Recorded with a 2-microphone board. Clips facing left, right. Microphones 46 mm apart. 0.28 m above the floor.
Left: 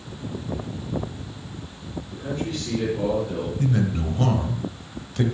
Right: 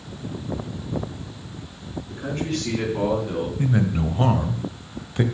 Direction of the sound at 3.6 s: 20° right (ahead or behind).